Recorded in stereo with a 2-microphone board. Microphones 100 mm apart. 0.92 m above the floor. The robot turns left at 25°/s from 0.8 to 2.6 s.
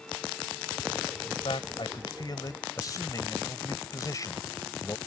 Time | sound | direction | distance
1.2 | a man speaking | 70° left | ?